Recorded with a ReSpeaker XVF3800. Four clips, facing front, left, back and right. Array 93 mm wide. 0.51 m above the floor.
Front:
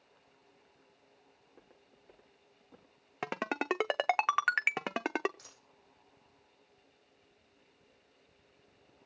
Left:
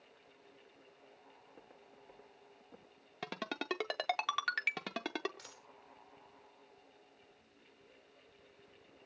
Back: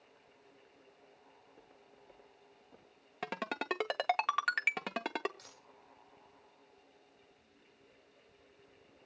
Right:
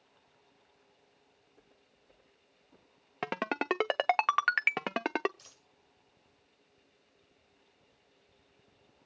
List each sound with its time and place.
1.4 s footsteps: 55° left, 9 m; by 3.0 s 50° left, 8.5 m
3.2 s a ringtone: 60° right, 0.5 m
5.4 s a dropped coin: 80° left, 9 m